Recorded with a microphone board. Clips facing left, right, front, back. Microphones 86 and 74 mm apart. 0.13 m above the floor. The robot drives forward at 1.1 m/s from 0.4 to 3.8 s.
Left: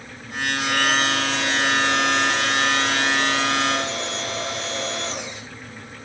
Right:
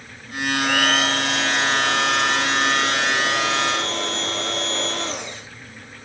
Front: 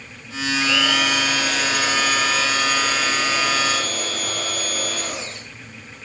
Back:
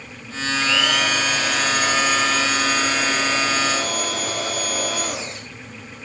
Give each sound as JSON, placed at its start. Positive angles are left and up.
{"t": 0.5, "sound": "a blender", "azimuth_deg": -95, "distance_m": 7.5}